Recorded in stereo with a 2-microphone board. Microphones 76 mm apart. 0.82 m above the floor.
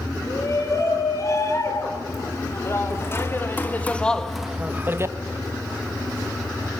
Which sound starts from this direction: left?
A shout, at 0.3 s.